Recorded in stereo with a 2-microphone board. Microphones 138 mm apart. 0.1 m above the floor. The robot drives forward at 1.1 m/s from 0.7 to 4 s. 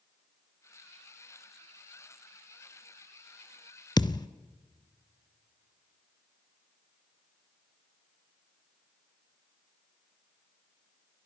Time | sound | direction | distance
4.0 | a thud | 30° left (ahead or behind) | 0.7 m